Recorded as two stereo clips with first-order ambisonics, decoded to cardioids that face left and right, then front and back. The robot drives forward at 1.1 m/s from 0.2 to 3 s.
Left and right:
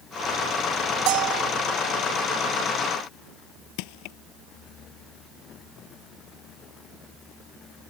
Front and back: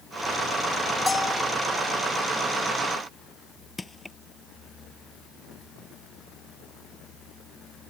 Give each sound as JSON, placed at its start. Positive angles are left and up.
{"t": 1.1, "sound": "a bell", "azimuth_deg": -75}
{"t": 3.8, "sound": "crushing", "azimuth_deg": 80}